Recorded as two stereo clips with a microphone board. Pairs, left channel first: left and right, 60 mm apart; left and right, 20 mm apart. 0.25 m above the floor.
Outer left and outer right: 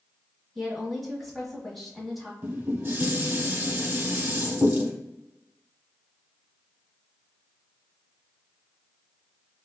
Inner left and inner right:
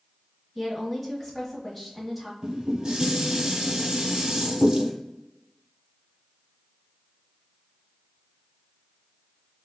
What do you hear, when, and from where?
0.6 s a woman speaking: centre (ahead or behind), 1.1 m
2.4 s dishes clattering: 40° right (ahead or behind), 0.8 m